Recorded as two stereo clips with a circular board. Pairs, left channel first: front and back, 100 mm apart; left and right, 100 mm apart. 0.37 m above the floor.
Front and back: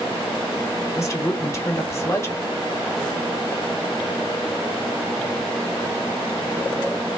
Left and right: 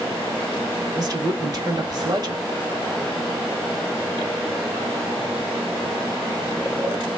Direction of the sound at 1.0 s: 55° right.